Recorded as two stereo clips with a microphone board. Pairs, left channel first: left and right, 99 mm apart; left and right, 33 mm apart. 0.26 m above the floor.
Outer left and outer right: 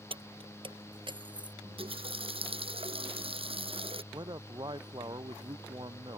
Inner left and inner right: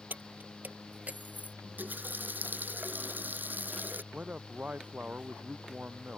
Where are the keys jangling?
65° right (ahead or behind); by 1.5 s 50° right (ahead or behind).